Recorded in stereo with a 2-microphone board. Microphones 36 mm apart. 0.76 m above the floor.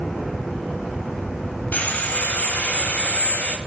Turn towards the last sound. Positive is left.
turn(degrees=55)  # may be behind; listen again after turning